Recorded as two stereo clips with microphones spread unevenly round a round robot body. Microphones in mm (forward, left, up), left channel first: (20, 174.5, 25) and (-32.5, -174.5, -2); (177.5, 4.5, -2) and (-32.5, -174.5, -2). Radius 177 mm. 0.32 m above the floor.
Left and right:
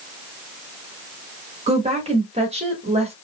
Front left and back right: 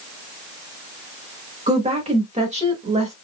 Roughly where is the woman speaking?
Behind right.